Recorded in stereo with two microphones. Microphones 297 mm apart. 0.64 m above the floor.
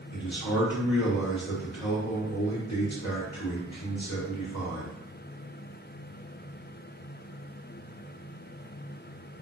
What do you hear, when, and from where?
0.1 s a man speaking: 60° left (ahead or behind), 1.2 m